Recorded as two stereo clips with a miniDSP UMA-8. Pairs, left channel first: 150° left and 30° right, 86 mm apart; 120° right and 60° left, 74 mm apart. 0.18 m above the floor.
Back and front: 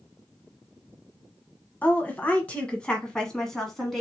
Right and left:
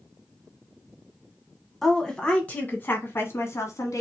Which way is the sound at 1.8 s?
155° left.